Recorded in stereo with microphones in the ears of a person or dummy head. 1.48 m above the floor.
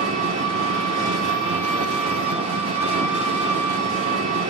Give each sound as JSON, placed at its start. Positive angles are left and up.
{"t": 0.0, "sound": "an engine running", "side_deg": -30, "distance_m": 1.4}